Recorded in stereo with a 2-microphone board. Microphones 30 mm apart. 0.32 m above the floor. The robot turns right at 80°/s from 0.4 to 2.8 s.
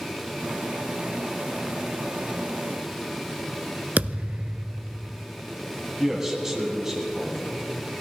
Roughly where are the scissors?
I don't hear scissors.